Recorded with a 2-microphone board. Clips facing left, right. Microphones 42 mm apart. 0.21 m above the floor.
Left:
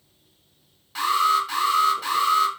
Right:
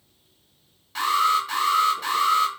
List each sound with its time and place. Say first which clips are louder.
0.9 s an alarm: left 1 dB; centre (ahead or behind), 1.4 m